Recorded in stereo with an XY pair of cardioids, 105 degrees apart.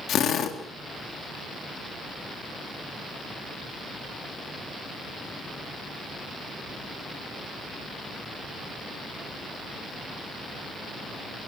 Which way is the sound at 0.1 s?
65° left.